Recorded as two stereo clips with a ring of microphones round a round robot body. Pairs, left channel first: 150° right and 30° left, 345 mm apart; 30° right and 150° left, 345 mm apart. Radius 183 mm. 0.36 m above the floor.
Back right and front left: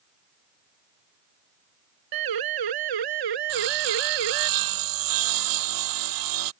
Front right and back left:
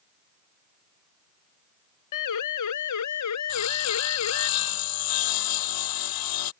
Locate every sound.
2.1 s a siren: 5° left; by 4.5 s 20° left
3.5 s sawing: straight ahead